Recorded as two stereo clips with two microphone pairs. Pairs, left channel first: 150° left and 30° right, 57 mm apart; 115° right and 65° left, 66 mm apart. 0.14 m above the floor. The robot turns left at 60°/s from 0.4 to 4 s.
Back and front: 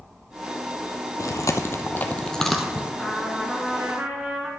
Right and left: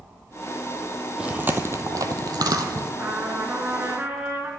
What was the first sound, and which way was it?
Chewing, 140° left.